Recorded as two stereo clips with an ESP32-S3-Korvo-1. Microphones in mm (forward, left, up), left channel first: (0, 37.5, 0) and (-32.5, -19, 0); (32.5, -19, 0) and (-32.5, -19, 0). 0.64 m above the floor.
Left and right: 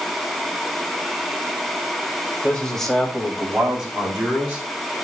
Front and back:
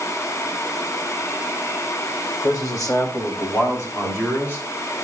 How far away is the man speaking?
About 3 m.